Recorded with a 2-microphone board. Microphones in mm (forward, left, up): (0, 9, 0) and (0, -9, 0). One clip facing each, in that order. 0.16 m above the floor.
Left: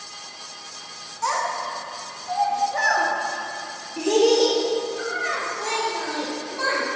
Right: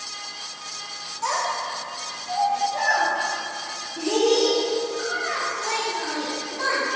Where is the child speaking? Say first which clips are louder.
Left 1 dB; 15° left (ahead or behind), 1.0 m; by 6.8 s 70° left (ahead or behind), 3 m.